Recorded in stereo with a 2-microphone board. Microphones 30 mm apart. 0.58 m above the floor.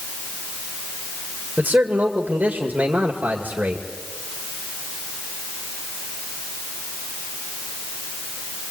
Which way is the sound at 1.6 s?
65° right (ahead or behind).